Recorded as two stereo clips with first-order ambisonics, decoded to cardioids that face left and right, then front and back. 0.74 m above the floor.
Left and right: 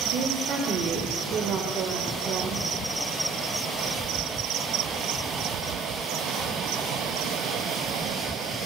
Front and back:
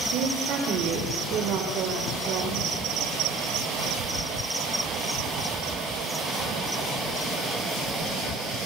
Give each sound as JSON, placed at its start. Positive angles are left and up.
{"t": 0.1, "sound": "a woman speaking", "azimuth_deg": -140, "distance_m": 3.5}